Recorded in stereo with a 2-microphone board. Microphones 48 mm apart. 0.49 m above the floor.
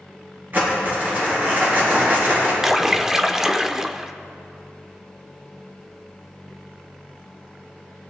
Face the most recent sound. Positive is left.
turn(degrees=-10)  # may be behind; listen again after turning